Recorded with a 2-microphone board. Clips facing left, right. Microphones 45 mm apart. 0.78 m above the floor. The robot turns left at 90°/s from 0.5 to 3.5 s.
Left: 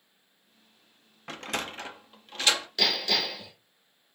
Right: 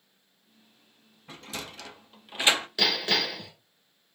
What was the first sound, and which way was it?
A sliding door, 65° left (ahead or behind).